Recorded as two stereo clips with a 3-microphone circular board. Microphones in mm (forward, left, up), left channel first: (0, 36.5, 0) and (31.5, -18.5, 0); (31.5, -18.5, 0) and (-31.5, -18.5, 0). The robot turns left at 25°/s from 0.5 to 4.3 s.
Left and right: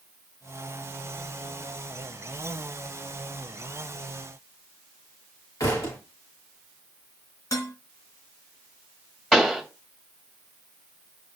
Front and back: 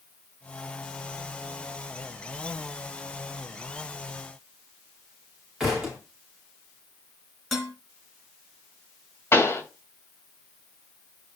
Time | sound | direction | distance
5.6 | a thud | 95° left | 5.5 m
7.5 | dishes clattering | 90° left | 2.5 m
9.3 | a pop | 45° left | 2.5 m